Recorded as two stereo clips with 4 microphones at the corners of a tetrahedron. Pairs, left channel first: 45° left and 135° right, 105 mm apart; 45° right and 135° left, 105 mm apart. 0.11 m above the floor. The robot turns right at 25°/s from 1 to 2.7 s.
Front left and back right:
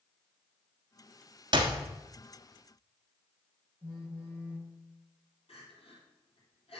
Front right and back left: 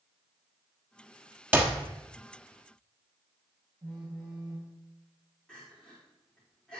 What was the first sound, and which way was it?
A clap, 160° right.